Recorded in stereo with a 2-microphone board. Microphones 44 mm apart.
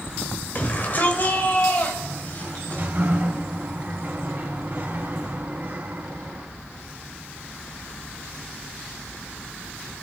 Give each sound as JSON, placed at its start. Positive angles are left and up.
{"t": 0.6, "sound": "a shout", "side_deg": 40, "distance_m": 2.0}
{"t": 2.0, "sound": "a sliding door", "side_deg": -50, "distance_m": 2.5}